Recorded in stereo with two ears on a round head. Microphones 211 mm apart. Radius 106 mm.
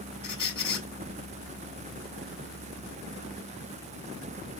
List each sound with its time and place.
0.2 s a squeak: 20° left (ahead or behind), 1.6 m